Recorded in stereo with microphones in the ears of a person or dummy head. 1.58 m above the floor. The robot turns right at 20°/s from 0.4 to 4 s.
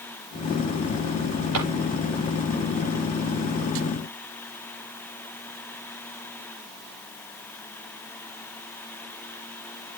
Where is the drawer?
80° right, 9.5 m.